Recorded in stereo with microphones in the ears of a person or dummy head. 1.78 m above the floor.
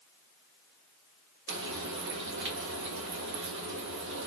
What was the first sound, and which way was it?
Frying, 60° right (ahead or behind).